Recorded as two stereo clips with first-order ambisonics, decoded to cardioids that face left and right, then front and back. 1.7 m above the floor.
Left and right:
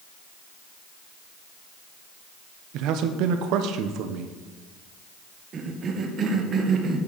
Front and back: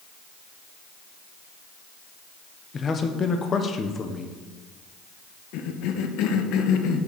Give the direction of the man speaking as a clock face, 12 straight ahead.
2 o'clock.